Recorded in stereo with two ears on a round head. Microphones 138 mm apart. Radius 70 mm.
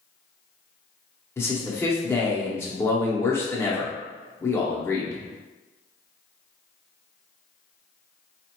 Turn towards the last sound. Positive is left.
turn(degrees=15)  # may be behind; listen again after turning